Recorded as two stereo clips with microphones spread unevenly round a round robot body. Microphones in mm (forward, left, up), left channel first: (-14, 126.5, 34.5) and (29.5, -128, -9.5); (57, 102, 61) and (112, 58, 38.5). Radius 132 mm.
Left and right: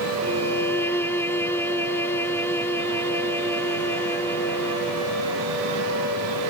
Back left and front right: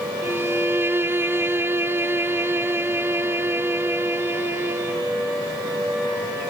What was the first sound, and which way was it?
A violin, 20° left.